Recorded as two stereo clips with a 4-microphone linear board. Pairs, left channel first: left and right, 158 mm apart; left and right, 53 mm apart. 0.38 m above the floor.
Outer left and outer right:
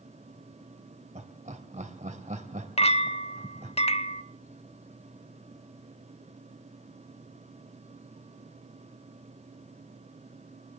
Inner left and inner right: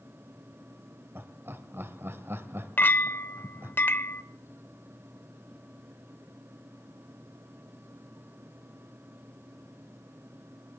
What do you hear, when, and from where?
1.1 s laughter: 50° right (ahead or behind), 1.9 m
2.8 s a clink: 40° left (ahead or behind), 0.6 m